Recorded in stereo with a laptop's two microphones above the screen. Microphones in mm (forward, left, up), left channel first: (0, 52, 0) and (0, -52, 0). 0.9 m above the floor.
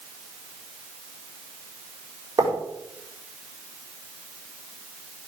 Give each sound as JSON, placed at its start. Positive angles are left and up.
{"t": 2.4, "sound": "writing", "side_deg": -35, "distance_m": 4.5}